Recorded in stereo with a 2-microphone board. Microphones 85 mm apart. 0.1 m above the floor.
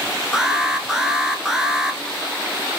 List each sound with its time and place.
0.3 s an alarm: 5° right (ahead or behind), 1.0 m